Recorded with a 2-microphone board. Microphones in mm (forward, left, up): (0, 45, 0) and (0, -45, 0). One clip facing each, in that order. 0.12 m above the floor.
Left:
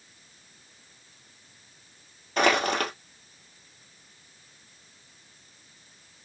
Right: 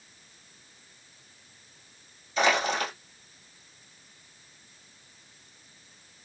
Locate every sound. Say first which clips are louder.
2.4 s crushing: left 2 dB; 65° left (ahead or behind), 1.7 m